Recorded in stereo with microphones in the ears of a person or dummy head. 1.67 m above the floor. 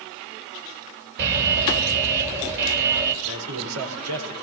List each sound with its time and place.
1.2 s an alarm: 65° right (ahead or behind), 5.5 m
3.2 s a man speaking: 80° right, 7.5 m